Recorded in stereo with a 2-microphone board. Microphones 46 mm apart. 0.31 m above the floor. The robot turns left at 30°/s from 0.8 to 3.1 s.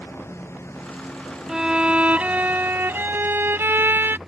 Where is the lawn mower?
65° left; by 4.3 s 5° right.